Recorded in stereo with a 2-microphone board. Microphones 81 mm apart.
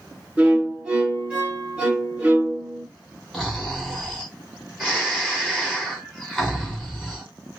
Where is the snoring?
Centre (ahead or behind), 2.5 m.